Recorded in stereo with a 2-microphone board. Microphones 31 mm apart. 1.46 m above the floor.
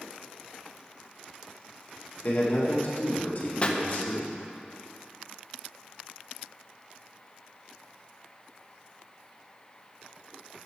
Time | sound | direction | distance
2.2 | a man speaking | 60° left (ahead or behind) | 1.8 m
3.6 | a pop | 30° left (ahead or behind) | 0.6 m